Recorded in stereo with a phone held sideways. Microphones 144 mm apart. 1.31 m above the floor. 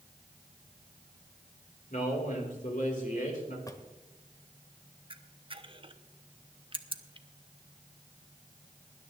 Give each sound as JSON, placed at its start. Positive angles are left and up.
{"t": 1.9, "sound": "a man speaking", "side_deg": 65, "distance_m": 4.5}
{"t": 3.7, "sound": "a drawer", "side_deg": 25, "distance_m": 1.3}
{"t": 5.1, "sound": "a camera shutter", "side_deg": -35, "distance_m": 0.8}